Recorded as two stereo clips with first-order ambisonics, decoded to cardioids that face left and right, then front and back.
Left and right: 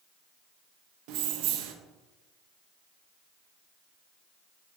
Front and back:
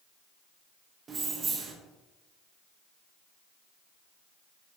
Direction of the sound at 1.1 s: 110° right.